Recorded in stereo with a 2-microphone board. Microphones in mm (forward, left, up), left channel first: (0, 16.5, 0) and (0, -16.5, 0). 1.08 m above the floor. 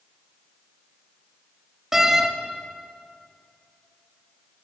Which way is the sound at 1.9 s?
15° right (ahead or behind).